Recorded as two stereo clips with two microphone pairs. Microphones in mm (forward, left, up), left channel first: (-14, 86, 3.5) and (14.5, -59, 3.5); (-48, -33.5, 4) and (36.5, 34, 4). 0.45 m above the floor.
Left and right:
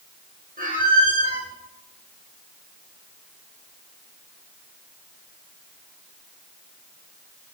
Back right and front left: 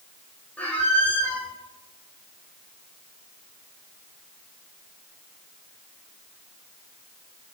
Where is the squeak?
65° right, 2.5 m.